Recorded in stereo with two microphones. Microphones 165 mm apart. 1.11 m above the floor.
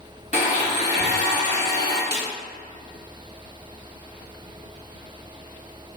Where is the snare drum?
85° left, 0.7 m.